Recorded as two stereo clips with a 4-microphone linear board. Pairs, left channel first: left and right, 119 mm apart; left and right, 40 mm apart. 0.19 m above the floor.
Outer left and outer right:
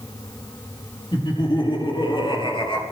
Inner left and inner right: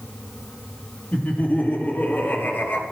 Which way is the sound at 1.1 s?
40° left (ahead or behind).